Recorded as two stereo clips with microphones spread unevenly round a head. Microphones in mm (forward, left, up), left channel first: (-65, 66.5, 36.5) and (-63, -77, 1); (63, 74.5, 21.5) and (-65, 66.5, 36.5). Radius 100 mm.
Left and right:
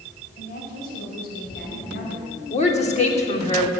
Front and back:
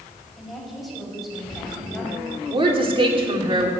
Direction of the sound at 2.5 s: 135° left.